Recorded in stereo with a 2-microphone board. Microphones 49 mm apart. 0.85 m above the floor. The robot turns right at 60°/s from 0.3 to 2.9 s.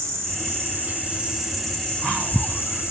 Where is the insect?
75° right, 3 m; by 2.9 s 80° left, 3 m.